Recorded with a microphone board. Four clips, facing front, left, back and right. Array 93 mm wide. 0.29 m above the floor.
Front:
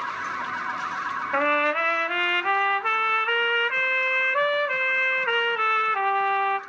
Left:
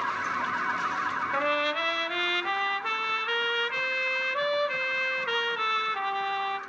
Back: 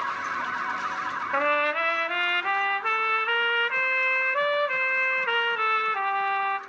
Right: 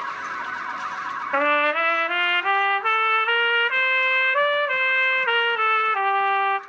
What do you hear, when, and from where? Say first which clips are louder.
1.3 s a trumpet: right 10 dB, front 2 dB; 75° right, 0.9 m